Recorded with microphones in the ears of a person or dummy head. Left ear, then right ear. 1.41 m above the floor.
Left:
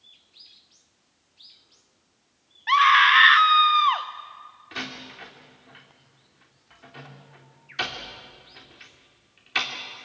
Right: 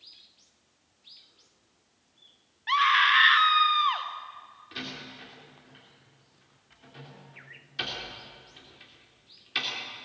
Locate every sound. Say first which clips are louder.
2.7 s a scream: left 5 dB; 15° left (ahead or behind), 1.3 m
4.7 s a door slam: left 4 dB; 30° left (ahead or behind), 3 m